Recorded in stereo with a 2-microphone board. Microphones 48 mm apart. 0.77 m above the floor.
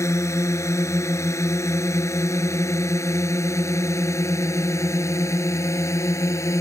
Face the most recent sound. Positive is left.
turn(degrees=85)